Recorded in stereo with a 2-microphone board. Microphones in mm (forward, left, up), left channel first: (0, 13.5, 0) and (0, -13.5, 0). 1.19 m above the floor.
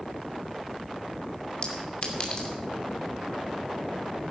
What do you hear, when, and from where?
1.6 s a clink: 40° left (ahead or behind), 2.5 m